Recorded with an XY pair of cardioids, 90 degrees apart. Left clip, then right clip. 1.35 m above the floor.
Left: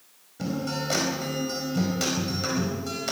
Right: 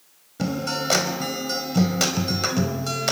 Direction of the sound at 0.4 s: 55° right.